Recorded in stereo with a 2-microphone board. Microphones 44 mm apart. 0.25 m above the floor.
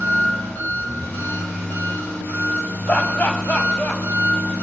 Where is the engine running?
70° left (ahead or behind), 4 m.